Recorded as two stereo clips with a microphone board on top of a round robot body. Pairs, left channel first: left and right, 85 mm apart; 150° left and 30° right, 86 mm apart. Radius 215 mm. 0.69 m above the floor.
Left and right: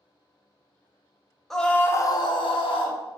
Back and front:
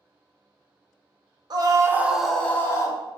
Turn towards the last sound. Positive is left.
turn(degrees=100)